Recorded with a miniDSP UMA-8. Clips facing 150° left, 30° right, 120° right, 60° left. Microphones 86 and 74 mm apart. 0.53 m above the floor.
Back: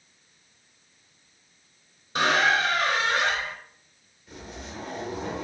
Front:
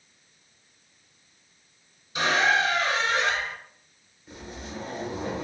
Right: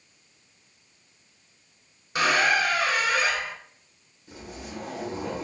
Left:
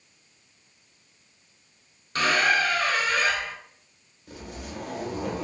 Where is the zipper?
35° left, 1.3 m.